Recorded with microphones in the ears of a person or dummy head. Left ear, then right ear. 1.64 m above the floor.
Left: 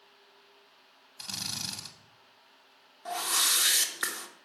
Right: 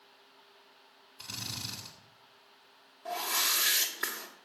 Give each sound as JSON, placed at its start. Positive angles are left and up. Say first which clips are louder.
{"t": 1.2, "sound": "a drill", "louder": "left 4 dB", "side_deg": 30, "distance_m": 2.0}
{"t": 3.0, "sound": "a whoosh", "louder": "left 3 dB", "side_deg": 25, "distance_m": 1.5}